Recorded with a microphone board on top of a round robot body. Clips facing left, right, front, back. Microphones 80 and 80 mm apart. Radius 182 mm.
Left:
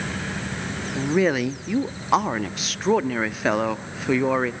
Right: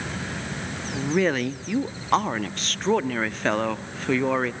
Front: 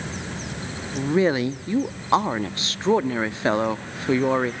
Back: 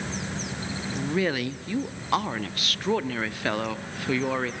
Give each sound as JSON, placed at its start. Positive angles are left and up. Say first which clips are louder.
{"t": 1.0, "sound": "a woman speaking", "louder": "left 2 dB, front 7 dB", "azimuth_deg": 15, "distance_m": 0.8}